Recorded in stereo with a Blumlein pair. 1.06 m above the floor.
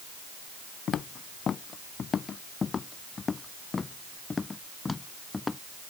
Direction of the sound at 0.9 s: 25° left.